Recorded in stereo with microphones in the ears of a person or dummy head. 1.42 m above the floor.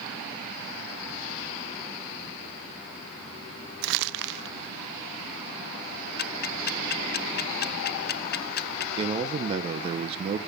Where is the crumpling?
55° right (ahead or behind), 0.6 m.